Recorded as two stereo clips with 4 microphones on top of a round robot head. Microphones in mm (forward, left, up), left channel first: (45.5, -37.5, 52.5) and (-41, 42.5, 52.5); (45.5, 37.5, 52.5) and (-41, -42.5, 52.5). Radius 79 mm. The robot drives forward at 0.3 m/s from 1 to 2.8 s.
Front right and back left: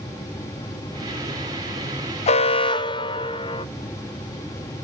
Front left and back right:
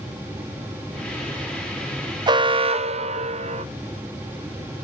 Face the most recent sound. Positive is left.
turn(degrees=-100)